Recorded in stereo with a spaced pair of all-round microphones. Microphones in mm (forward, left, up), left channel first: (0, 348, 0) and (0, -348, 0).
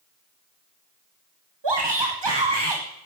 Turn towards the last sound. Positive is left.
turn(degrees=-40)  # may be behind; listen again after turning